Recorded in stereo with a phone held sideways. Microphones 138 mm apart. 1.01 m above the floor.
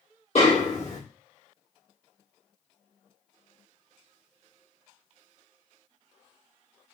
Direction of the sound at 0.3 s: 50° left (ahead or behind).